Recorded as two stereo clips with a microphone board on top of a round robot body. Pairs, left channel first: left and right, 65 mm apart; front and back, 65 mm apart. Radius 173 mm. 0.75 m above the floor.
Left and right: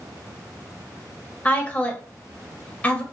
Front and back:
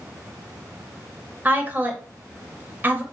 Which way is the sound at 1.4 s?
145° left.